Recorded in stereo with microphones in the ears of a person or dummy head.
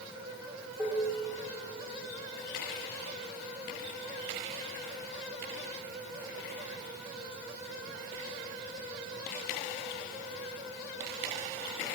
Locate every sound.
0.8 s dishes clattering: centre (ahead or behind), 1.7 m